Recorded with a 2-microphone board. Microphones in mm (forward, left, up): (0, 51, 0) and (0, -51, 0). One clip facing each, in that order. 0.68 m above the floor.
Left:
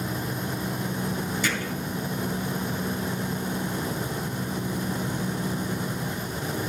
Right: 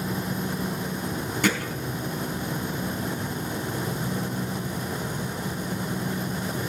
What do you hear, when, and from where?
1.4 s hammering: 55° right (ahead or behind), 3 m